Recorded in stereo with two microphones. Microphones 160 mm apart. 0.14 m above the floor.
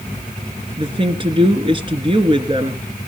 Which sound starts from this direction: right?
A woman speaking, at 0.8 s.